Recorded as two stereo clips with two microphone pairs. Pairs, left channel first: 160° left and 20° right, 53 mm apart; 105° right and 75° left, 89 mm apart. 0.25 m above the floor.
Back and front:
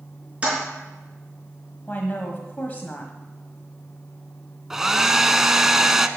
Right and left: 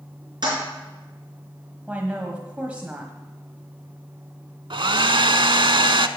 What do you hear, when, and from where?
0.4 s a toilet flushing: 45° left, 4.5 m
1.9 s a woman speaking: 135° left, 1.3 m
4.7 s a hair dryer: 65° left, 0.6 m